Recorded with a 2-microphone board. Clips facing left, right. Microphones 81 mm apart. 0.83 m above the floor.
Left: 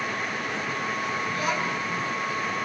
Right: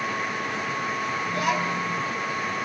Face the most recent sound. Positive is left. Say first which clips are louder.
# right 4 dB
turn(degrees=-65)  # may be behind; listen again after turning